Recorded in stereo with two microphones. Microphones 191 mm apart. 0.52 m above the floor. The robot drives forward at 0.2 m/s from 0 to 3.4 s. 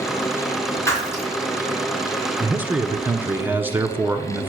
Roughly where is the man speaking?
Centre.